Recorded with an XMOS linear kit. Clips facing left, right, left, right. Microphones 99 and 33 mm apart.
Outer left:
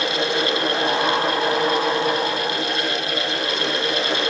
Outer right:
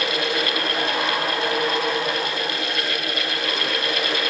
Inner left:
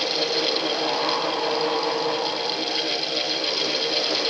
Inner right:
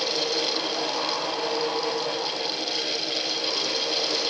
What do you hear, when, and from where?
Only background noise.